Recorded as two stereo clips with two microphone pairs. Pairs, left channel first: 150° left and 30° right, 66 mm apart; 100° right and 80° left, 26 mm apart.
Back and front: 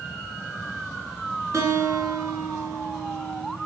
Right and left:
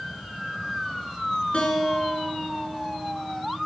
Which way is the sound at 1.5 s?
70° right.